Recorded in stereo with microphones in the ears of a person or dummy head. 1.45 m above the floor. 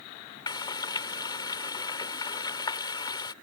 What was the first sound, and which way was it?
Frying, 15° left (ahead or behind).